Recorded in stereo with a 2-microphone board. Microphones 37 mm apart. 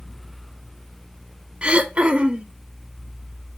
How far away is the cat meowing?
I don't hear a cat meowing.